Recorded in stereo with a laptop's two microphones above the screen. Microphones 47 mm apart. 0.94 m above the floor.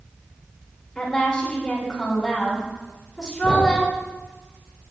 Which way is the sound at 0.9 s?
5° left (ahead or behind).